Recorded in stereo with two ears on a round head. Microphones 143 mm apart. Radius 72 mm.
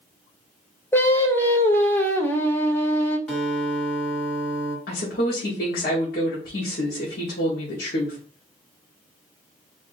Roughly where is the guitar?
Centre.